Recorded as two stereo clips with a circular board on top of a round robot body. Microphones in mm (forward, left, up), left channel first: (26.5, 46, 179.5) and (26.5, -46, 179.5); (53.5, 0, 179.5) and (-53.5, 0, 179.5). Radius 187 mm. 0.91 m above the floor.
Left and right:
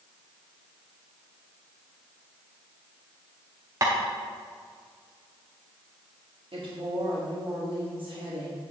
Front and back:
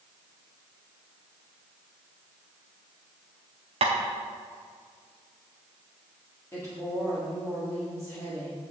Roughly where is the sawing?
I don't hear sawing.